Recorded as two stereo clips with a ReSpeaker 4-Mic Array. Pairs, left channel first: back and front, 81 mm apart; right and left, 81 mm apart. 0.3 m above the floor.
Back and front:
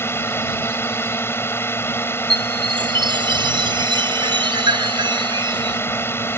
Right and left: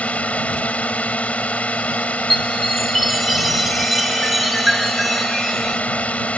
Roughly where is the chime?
Ahead.